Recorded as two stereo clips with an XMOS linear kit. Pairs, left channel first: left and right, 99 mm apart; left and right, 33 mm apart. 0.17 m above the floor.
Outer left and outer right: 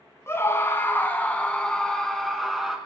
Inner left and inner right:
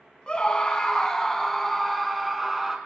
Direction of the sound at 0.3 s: 25° left (ahead or behind).